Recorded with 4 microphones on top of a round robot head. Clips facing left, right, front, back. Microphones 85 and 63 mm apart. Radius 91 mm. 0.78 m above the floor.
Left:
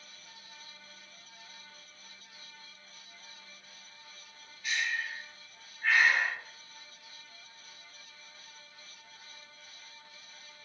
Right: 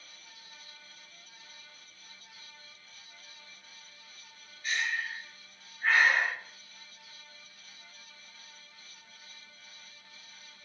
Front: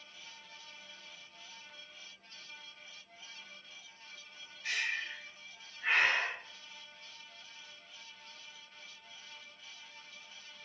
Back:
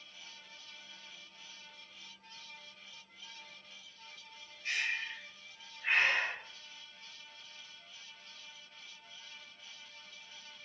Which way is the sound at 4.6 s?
35° right.